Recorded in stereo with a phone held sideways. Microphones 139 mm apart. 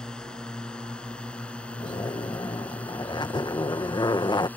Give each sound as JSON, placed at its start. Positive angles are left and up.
{"t": 0.0, "sound": "a drone", "side_deg": 5}
{"t": 1.8, "sound": "a zipper", "side_deg": 30}